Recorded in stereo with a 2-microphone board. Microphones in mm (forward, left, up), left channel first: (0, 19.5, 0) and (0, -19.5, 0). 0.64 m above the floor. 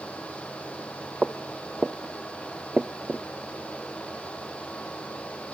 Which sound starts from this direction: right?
Footsteps, at 1.2 s.